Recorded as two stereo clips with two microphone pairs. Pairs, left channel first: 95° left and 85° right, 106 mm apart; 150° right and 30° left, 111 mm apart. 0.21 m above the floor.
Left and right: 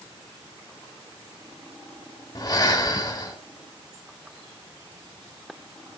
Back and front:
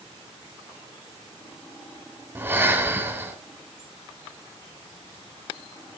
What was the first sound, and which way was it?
Breathing, 80° left.